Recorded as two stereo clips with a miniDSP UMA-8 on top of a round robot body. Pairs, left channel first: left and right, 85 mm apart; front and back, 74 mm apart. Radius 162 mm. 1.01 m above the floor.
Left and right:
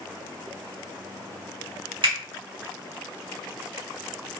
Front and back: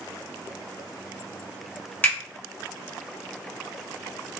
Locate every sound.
2.0 s a finger snap: 65° right, 1.5 m